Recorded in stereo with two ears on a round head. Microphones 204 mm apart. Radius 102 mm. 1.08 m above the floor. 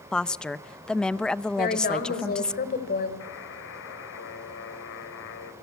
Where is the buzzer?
60° left (ahead or behind), 2.5 m.